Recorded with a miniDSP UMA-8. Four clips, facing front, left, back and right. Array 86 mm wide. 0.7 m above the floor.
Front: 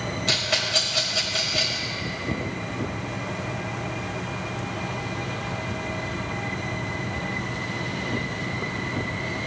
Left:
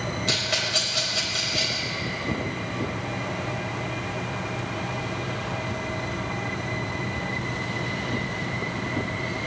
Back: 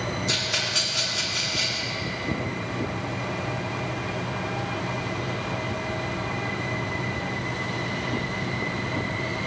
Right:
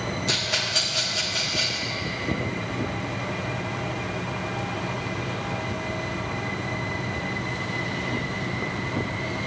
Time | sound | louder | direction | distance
0.3 | a rattle | left 1 dB, front 2 dB | 30° left | 4 m